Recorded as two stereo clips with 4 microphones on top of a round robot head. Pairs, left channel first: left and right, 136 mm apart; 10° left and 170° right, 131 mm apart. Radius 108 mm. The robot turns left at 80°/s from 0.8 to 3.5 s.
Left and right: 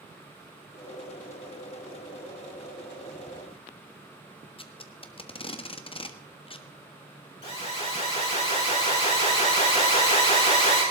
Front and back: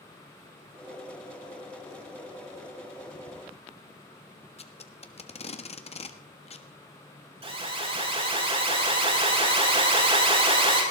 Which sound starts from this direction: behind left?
An alarm, at 7.4 s.